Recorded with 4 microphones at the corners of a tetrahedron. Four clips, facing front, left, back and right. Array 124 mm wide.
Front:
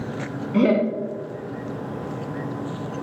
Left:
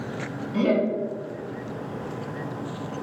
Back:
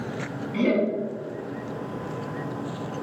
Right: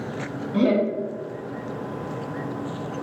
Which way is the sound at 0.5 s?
20° right.